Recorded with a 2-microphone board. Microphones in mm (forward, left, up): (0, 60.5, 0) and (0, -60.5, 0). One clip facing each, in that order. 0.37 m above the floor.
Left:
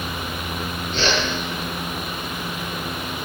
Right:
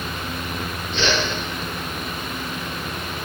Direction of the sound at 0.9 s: 40° left (ahead or behind).